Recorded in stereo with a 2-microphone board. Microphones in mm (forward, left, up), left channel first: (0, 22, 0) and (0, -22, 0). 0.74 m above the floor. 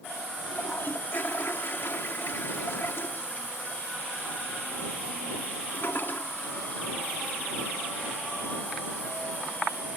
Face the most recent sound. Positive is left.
turn(degrees=55)  # may be behind; listen again after turning